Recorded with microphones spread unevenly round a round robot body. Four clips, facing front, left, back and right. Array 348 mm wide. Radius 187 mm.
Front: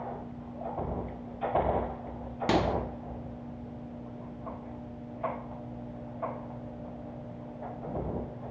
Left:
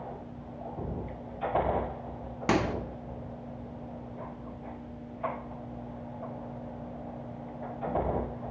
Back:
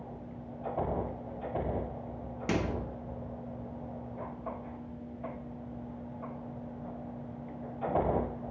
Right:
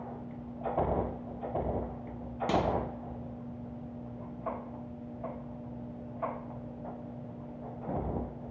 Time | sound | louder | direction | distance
2.5 | a microwave | left 2 dB, front 5 dB | 50° left | 0.9 m